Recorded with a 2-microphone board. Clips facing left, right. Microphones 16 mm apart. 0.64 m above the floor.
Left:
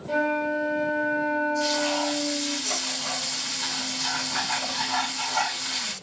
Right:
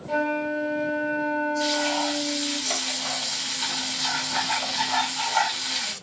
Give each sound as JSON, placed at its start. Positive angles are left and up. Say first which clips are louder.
{"t": 0.1, "sound": "a flute", "louder": "left 1 dB", "side_deg": -5, "distance_m": 1.2}
{"t": 1.6, "sound": "frying", "louder": "right 1 dB", "side_deg": -55, "distance_m": 2.0}